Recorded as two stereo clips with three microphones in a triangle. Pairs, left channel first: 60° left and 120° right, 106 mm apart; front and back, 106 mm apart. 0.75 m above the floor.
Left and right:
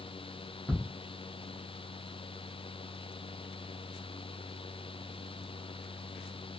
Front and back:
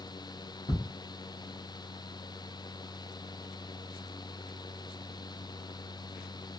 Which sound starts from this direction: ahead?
Ticking, at 0.7 s.